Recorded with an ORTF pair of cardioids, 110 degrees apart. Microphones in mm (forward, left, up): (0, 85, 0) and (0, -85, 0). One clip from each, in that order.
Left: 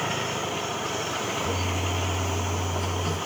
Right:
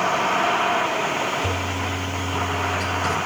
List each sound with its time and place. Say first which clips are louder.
1.4 s a toilet flushing: right 3 dB; 60° right, 4 m